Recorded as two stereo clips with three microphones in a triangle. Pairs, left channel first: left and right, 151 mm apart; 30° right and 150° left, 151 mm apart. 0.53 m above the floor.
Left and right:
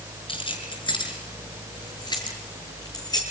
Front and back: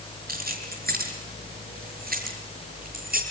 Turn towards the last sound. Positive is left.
turn(degrees=155)